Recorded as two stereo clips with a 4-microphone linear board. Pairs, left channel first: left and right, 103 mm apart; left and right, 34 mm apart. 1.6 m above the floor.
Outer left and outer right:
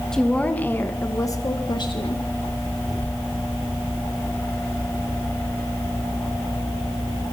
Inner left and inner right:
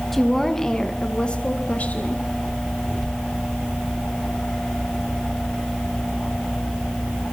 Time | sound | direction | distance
0.1 | a woman speaking | 5° left (ahead or behind) | 2 m